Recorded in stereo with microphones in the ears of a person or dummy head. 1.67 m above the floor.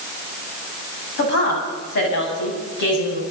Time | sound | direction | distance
1.2 | a woman speaking | 55° left (ahead or behind) | 9.5 m